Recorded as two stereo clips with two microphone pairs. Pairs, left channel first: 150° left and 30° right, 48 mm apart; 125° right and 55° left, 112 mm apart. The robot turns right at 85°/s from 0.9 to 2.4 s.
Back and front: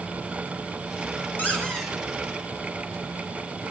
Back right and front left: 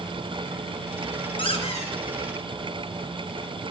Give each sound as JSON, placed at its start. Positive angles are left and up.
{"t": 1.4, "sound": "a squeak", "azimuth_deg": -160, "distance_m": 2.5}